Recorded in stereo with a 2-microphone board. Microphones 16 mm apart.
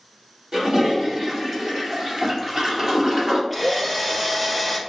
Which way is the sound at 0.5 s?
50° right (ahead or behind).